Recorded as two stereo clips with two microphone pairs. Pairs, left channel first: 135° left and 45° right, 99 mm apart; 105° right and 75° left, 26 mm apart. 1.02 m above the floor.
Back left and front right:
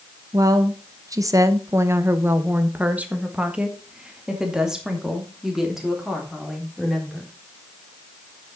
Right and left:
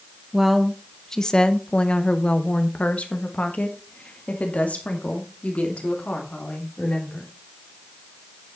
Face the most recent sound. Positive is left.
turn(degrees=-130)